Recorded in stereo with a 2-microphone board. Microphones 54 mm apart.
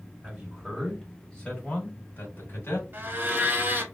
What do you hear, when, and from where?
0.2 s a man speaking: 20° right (ahead or behind), 1.2 m; by 2.8 s 45° left (ahead or behind), 1.6 m
2.9 s a blender: 40° right (ahead or behind), 0.7 m